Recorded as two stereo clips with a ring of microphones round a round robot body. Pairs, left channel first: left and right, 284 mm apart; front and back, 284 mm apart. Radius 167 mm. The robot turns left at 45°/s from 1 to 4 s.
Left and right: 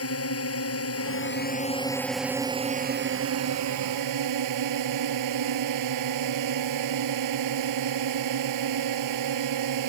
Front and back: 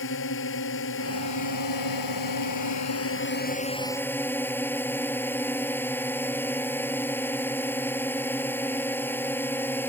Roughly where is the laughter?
No laughter in this recording.